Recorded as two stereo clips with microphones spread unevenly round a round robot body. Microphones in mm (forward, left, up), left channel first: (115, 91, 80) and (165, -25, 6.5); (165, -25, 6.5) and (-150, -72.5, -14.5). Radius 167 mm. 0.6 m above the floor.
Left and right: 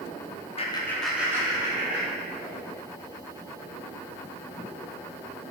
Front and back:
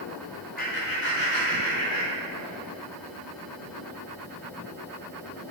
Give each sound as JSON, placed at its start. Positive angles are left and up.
{"t": 0.6, "sound": "laughter", "azimuth_deg": 50, "distance_m": 1.0}